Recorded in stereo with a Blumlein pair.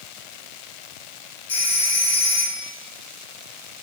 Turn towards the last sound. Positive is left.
turn(degrees=50)